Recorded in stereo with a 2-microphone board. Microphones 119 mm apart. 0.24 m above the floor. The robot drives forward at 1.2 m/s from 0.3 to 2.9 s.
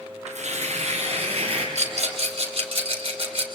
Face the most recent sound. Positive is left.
turn(degrees=-45)  # may be behind; listen again after turning